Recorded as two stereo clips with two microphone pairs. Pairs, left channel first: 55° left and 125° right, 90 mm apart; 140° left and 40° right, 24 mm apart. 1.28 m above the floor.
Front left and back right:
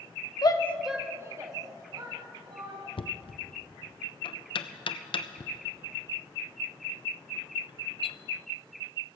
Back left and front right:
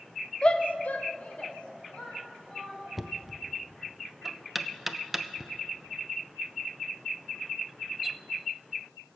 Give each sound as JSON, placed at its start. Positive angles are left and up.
{"t": 0.4, "sound": "a shout", "azimuth_deg": 90, "distance_m": 0.8}
{"t": 3.0, "sound": "knocking", "azimuth_deg": 40, "distance_m": 0.5}